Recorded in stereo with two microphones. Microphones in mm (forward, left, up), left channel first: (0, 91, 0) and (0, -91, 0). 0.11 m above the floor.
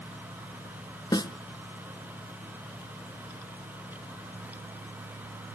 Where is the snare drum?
25° left (ahead or behind), 0.6 m.